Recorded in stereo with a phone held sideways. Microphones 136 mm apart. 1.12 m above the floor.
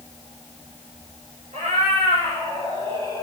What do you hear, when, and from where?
1.5 s a cat meowing: 65° right (ahead or behind), 2.5 m; by 3.2 s 40° right (ahead or behind), 4 m